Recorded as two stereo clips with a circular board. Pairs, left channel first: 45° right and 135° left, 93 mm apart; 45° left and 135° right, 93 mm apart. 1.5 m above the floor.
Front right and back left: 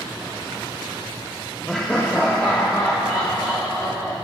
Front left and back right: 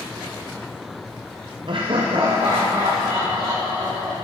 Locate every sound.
1.7 s laughter: 135° right, 0.5 m; by 4.1 s 115° right, 3 m